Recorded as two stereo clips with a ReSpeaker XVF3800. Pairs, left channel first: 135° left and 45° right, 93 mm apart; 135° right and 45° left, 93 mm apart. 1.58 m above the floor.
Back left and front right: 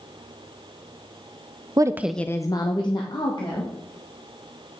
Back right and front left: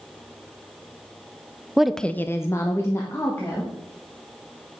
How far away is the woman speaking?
About 0.6 m.